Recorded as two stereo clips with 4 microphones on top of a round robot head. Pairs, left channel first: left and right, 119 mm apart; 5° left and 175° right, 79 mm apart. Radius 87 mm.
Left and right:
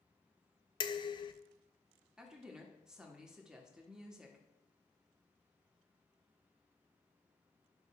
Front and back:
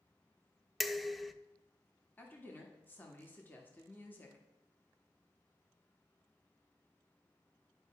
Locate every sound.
0.8 s dishes clattering: 95° left, 0.5 m
2.2 s a woman speaking: 15° right, 1.3 m